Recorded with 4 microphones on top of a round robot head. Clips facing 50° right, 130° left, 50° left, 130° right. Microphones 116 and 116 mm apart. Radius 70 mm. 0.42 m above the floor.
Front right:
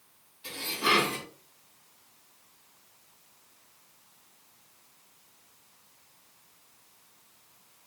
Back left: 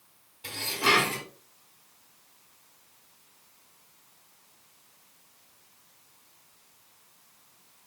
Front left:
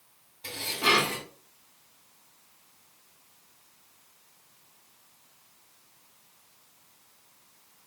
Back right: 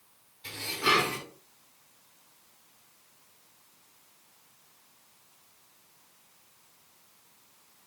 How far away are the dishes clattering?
About 2.5 m.